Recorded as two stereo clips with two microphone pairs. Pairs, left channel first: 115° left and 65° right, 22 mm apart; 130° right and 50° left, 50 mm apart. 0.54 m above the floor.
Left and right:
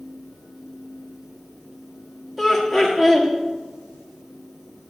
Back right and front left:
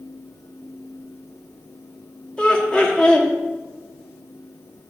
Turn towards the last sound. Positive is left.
turn(degrees=-155)